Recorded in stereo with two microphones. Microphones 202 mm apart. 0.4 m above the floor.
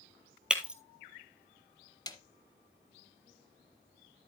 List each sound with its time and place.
0.5 s breaking glass: 5° right (ahead or behind), 1.0 m
2.1 s a snare drum: 20° left (ahead or behind), 0.7 m